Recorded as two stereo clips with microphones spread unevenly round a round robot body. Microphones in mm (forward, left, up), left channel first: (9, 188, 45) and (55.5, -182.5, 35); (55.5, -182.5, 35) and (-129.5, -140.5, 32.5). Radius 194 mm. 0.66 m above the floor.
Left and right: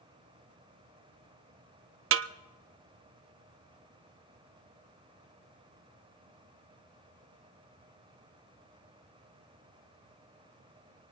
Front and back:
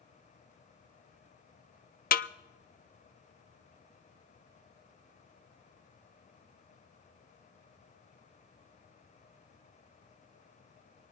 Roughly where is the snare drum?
Ahead right.